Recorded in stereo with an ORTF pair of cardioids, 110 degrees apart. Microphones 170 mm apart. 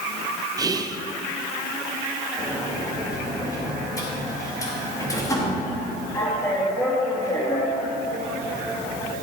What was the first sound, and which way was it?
Whispering, 20° right.